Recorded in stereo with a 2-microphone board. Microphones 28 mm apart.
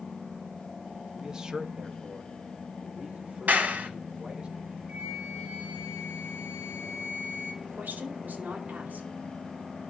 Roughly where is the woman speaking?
Right.